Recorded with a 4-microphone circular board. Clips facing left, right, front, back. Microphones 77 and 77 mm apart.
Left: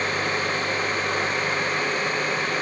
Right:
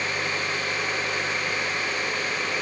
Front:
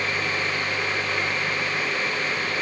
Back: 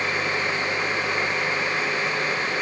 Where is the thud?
I don't hear a thud.